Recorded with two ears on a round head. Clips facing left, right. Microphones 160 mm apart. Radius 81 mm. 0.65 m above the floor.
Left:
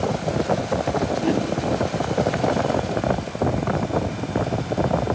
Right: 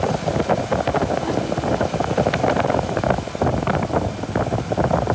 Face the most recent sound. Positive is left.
turn(degrees=30)  # may be behind; listen again after turning